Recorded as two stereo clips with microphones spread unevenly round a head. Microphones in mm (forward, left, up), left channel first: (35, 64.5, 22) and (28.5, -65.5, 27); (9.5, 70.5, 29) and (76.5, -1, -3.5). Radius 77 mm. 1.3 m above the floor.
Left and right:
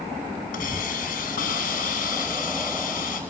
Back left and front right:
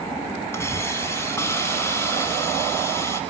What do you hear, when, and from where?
0.5 s a hiss: 70° left, 7 m